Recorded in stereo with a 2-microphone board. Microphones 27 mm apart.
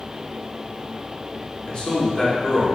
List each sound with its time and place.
1.7 s a man speaking: 35° left (ahead or behind), 1.1 m